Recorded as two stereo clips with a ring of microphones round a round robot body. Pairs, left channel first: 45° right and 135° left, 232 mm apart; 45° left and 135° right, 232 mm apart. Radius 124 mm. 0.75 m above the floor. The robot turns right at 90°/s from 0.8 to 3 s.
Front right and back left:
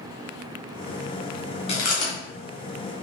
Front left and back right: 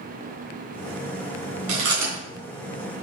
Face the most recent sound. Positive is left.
turn(degrees=5)